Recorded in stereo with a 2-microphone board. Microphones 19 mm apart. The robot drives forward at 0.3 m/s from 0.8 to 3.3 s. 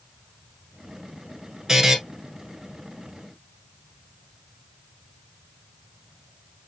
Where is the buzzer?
20° right (ahead or behind), 1.4 m.